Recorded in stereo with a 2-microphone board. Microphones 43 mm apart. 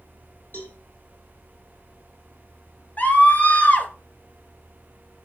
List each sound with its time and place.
0.5 s a cowbell: 55° left (ahead or behind), 3 m
3.0 s a scream: 45° left (ahead or behind), 2 m